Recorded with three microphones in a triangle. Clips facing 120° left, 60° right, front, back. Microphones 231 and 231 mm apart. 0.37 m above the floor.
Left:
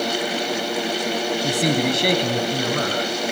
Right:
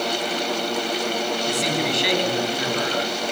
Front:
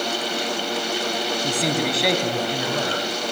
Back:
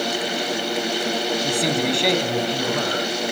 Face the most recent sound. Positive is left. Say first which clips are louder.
# left 7 dB, even
turn(degrees=90)